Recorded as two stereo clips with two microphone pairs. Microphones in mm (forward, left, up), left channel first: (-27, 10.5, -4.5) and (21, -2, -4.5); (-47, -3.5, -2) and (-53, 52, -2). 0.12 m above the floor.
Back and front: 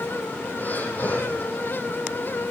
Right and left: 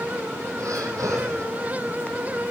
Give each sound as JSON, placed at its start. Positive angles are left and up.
{"t": 0.6, "sound": "breathing", "azimuth_deg": 115, "distance_m": 3.0}